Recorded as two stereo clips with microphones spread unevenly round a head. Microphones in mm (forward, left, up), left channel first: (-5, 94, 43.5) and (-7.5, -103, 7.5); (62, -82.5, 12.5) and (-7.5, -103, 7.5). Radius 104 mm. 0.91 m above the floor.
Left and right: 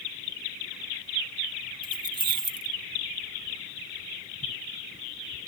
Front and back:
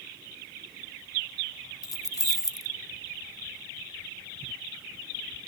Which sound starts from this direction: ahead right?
Keys jangling, at 1.8 s.